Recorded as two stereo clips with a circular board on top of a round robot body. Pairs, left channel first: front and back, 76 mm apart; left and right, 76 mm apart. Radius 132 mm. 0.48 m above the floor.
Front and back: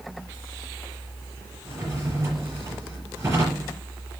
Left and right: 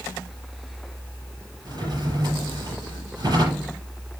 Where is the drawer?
125° right, 5 m.